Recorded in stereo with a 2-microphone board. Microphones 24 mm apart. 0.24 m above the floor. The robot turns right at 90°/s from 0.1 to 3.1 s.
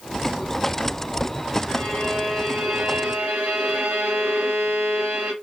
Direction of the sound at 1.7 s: 120° left.